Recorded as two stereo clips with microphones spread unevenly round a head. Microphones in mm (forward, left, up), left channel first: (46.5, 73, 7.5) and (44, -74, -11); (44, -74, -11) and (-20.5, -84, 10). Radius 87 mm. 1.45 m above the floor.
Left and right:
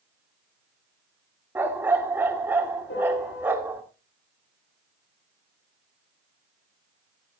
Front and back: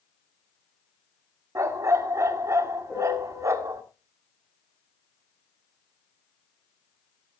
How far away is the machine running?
No machine running in this recording.